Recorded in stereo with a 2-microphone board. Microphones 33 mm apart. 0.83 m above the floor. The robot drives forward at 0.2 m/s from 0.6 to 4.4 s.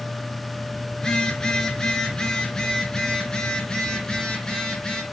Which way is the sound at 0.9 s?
20° left (ahead or behind).